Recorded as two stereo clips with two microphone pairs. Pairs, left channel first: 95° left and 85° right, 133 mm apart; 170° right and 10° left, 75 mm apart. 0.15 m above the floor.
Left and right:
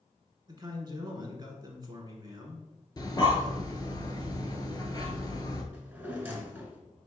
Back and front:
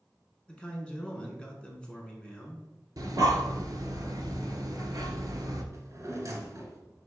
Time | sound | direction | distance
0.5 | a man speaking | 105° right | 1.1 m
3.0 | breathing | 35° left | 0.8 m
5.7 | a drawer | 10° right | 1.0 m